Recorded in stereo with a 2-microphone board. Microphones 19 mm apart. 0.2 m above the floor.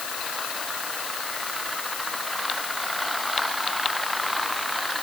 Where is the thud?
No thud in this recording.